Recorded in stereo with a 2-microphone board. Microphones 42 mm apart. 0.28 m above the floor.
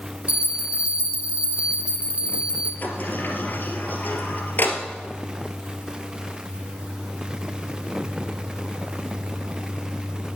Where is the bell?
30° right (ahead or behind), 2 m.